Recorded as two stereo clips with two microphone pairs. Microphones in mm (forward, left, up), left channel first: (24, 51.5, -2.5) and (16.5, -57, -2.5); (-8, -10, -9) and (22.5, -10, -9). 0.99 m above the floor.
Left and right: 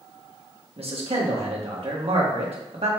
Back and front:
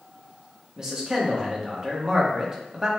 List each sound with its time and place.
0.8 s a man speaking: 70° right, 1.3 m